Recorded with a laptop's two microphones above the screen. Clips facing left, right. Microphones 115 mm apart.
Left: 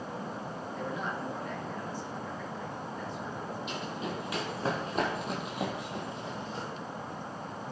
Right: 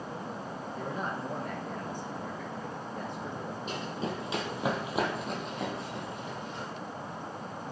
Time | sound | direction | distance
0.8 | a man speaking | 35° right (ahead or behind) | 1.1 m
3.7 | running footsteps | 40° right (ahead or behind) | 1.5 m